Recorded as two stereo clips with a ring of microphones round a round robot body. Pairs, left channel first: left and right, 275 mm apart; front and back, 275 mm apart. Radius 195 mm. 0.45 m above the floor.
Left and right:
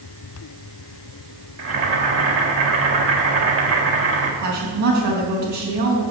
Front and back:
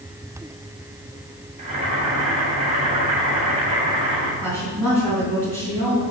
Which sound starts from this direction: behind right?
Boiling, at 1.6 s.